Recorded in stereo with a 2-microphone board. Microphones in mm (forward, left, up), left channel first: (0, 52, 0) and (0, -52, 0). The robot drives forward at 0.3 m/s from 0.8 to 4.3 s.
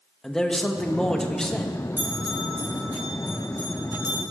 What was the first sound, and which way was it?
A man speaking, 5° left (ahead or behind).